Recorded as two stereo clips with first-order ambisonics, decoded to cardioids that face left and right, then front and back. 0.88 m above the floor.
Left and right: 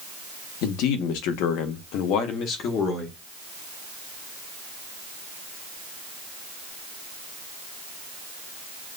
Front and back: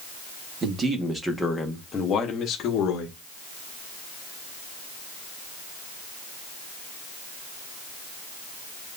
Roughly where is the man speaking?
Behind left.